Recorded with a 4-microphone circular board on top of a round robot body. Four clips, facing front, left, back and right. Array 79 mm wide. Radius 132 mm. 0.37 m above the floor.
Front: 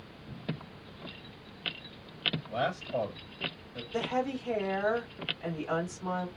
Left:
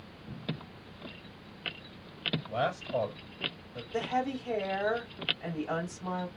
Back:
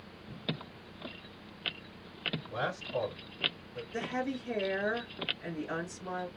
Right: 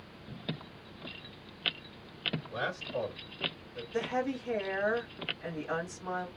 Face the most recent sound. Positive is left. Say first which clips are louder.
# left 1 dB, front 4 dB
turn(degrees=45)